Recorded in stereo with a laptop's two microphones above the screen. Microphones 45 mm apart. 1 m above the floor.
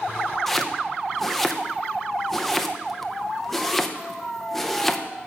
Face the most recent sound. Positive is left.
turn(degrees=5)  # may be behind; listen again after turning